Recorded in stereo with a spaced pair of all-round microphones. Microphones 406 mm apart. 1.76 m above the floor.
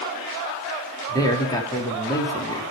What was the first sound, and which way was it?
A man speaking, 10° left (ahead or behind).